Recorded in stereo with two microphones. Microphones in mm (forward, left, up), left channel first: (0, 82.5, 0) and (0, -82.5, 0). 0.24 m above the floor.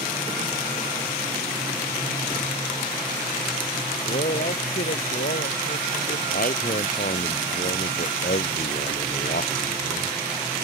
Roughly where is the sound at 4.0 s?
Left.